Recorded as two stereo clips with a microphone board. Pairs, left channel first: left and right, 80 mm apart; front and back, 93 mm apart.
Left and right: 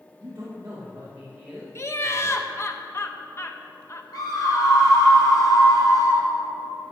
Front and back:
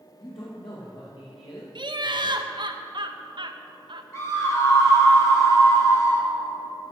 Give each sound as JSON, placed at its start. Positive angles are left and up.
{"t": 0.2, "sound": "a man speaking", "azimuth_deg": -35, "distance_m": 3.0}
{"t": 1.8, "sound": "laughter", "azimuth_deg": 145, "distance_m": 1.1}
{"t": 4.1, "sound": "a scream", "azimuth_deg": 55, "distance_m": 4.0}